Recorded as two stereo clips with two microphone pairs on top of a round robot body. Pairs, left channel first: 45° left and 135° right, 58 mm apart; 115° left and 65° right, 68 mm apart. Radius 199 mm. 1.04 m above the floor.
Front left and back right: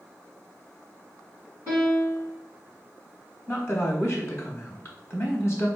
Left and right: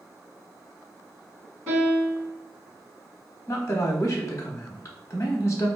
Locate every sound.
1.7 s a piano: 5° right, 1.9 m
3.5 s a woman speaking: 85° left, 1.0 m